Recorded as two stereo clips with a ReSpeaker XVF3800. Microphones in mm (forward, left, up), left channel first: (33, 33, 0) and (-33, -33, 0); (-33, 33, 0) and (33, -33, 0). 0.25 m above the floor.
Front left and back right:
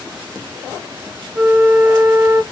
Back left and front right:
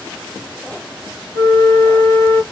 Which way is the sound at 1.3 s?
170° left.